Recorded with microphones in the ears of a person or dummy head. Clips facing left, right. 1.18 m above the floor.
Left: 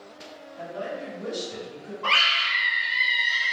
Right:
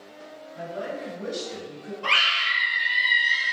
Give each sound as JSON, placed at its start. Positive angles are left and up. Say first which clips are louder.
{"t": 0.6, "sound": "a woman speaking", "louder": "right 1 dB", "side_deg": -55, "distance_m": 1.4}
{"t": 2.0, "sound": "a scream", "louder": "left 1 dB", "side_deg": -30, "distance_m": 0.8}